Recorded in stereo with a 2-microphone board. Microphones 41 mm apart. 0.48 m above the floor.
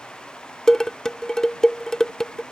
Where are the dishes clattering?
15° left (ahead or behind).